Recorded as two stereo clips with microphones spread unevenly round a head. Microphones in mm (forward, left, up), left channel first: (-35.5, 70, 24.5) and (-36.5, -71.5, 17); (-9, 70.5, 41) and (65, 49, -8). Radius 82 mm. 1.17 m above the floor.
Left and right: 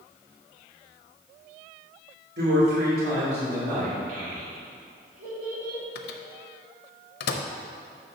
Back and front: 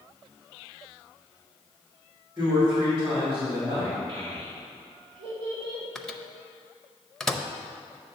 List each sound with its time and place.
2.4 s a man speaking: 90° right, 2.5 m; by 4.0 s 110° right, 2.5 m
4.1 s a child speaking: 45° right, 2.0 m
6.0 s a microwave: 90° left, 0.6 m